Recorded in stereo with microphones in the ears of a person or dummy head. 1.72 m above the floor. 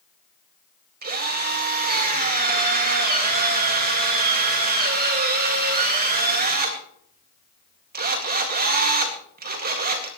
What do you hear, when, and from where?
1.0 s a drill: 45° right (ahead or behind), 2 m